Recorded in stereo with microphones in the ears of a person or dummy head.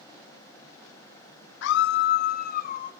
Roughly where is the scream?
Left.